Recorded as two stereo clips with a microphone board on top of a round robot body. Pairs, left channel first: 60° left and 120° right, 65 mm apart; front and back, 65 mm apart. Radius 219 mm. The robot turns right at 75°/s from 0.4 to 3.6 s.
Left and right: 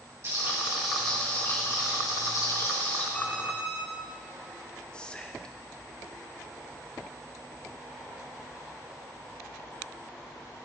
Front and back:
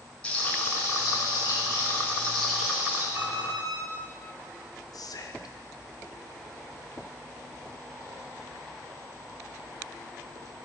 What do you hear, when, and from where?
0.2 s frying: 75° right, 5.5 m; by 3.0 s 125° left, 5.5 m
3.1 s an alarm clock: 130° left, 5 m; by 3.8 s 160° left, 5 m
4.9 s whispering: 15° right, 1.9 m